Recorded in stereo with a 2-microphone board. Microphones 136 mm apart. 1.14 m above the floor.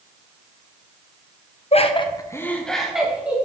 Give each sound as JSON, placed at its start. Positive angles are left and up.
{"t": 1.7, "sound": "laughter", "side_deg": 50, "distance_m": 0.9}